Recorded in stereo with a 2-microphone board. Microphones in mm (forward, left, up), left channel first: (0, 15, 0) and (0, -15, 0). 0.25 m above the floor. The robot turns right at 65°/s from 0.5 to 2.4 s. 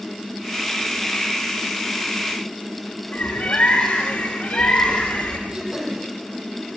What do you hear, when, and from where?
3.1 s a bird: 45° left (ahead or behind), 9.5 m
5.5 s throat clearing: 25° right (ahead or behind), 7 m